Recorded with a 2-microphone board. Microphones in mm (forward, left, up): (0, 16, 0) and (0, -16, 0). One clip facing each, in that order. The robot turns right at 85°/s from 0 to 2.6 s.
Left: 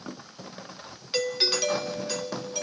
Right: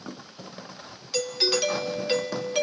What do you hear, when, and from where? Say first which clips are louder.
1.1 s a doorbell: right 1 dB; 150° left, 1.5 m; by 2.6 s 85° right, 1.5 m